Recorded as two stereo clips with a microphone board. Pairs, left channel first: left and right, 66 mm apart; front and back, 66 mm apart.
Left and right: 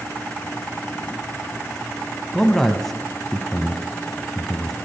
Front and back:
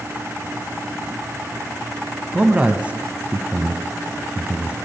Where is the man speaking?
165° left, 1.1 m.